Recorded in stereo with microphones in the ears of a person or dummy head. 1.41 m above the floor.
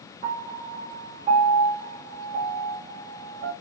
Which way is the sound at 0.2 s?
35° right (ahead or behind).